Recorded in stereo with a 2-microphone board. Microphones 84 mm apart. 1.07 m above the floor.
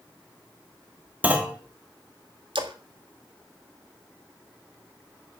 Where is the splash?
80° right, 1.8 m.